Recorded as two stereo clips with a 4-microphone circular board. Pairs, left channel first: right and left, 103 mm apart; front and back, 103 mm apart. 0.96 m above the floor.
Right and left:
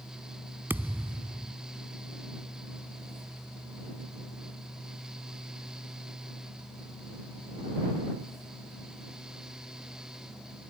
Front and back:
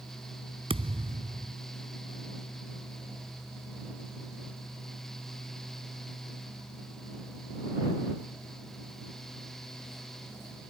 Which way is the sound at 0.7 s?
160° left.